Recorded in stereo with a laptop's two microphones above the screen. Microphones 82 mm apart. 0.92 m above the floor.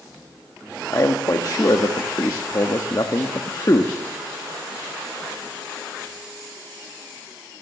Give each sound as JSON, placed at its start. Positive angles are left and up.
{"t": 0.9, "sound": "a man speaking", "side_deg": 50, "distance_m": 1.1}